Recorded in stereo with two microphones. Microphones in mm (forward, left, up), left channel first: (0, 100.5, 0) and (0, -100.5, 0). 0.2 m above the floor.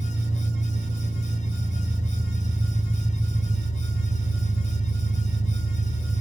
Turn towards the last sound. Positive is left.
turn(degrees=-25)  # may be behind; listen again after turning